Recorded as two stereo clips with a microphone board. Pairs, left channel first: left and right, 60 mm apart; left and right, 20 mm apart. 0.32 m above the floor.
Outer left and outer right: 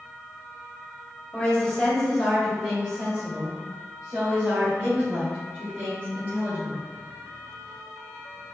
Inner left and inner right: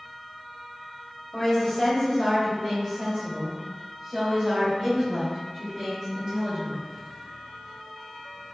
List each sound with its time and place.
1.3 s a woman speaking: 15° left (ahead or behind), 1.5 m; by 6.8 s 30° right (ahead or behind), 4 m